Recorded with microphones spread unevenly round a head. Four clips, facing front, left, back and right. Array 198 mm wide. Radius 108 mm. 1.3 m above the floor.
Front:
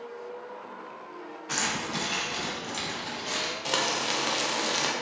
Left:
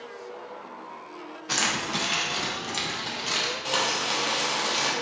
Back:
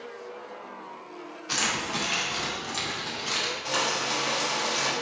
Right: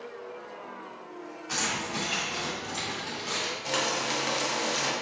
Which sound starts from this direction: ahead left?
Keys jangling, at 1.5 s.